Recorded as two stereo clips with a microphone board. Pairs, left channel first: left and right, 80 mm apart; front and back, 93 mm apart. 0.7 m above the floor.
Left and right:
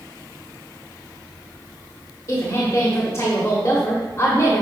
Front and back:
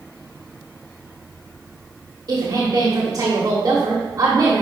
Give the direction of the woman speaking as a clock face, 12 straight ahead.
7 o'clock.